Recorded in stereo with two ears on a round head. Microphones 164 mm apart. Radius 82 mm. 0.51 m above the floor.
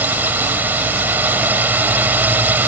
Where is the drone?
10° right (ahead or behind).